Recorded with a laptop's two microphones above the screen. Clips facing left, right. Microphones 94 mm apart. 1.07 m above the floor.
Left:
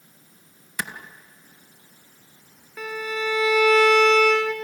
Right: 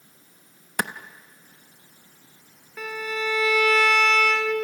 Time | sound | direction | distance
0.8 | a clap | 60° right (ahead or behind) | 0.8 m
2.8 | a violin | 5° left (ahead or behind) | 2.5 m